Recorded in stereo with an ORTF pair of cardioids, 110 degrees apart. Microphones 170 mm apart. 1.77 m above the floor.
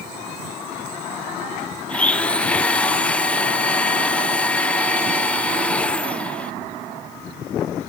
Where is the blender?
5° left, 0.6 m.